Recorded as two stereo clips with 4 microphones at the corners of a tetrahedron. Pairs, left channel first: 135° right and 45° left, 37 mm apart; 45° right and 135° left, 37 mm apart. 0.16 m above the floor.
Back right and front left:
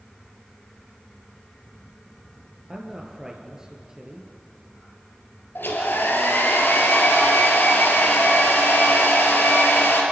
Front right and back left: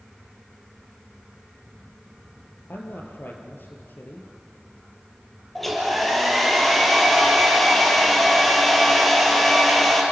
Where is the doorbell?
I don't hear a doorbell.